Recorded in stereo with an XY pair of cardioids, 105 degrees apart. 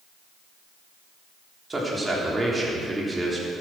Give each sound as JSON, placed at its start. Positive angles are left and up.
{"t": 1.7, "sound": "a man speaking", "azimuth_deg": -20, "distance_m": 3.5}